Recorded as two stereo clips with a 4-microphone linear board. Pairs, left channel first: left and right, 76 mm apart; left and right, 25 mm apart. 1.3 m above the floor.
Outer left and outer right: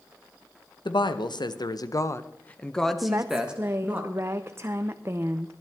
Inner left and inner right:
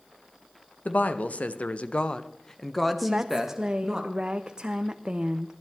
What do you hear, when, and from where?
0.8 s a woman speaking: 85° left, 1.3 m; by 4.0 s 20° right (ahead or behind), 1.7 m
3.0 s a woman speaking: 35° right (ahead or behind), 0.5 m